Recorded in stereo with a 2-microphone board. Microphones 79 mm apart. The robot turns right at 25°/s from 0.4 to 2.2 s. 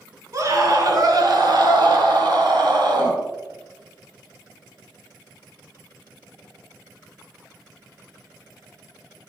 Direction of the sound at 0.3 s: 130° right.